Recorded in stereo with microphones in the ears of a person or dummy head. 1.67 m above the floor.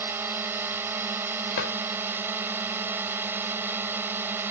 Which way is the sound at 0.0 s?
20° right (ahead or behind).